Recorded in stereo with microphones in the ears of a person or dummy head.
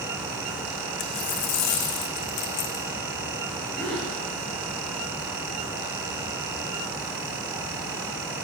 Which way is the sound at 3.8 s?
5° left (ahead or behind).